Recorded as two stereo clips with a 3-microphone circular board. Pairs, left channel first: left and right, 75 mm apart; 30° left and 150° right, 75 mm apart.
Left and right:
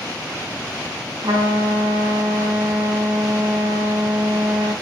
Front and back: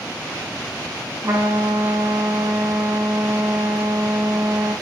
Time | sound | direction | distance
1.2 | a trumpet | 100° right | 2.0 m